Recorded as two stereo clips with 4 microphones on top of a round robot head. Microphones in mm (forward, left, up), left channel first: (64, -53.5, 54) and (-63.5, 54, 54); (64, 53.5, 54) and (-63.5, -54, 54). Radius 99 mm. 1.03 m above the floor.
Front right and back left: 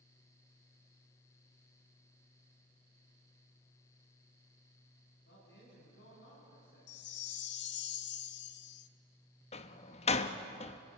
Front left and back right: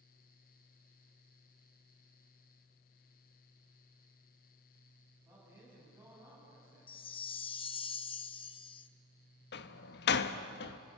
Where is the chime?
20° right, 0.8 m.